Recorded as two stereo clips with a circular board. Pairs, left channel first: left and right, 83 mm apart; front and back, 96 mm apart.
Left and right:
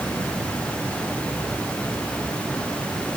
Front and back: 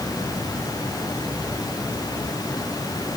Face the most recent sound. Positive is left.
No sound to turn to.